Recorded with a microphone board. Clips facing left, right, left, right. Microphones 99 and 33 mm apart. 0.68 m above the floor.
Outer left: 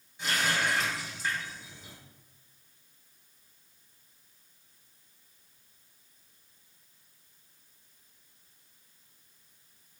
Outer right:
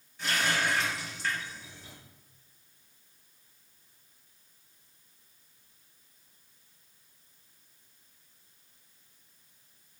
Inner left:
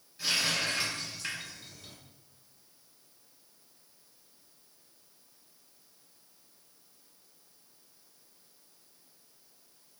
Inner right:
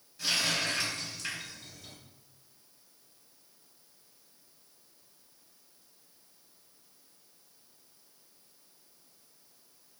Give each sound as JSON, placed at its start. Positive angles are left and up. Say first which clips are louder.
{"t": 0.2, "sound": "a running tap", "louder": "even, even", "side_deg": 20, "distance_m": 2.0}